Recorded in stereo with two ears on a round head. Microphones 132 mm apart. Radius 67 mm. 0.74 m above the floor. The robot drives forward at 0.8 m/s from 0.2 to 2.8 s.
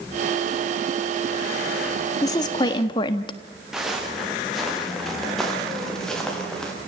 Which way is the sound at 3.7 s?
5° right (ahead or behind).